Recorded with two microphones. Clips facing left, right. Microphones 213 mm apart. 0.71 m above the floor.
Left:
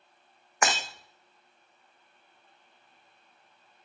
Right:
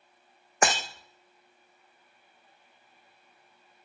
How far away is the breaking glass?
About 1.5 m.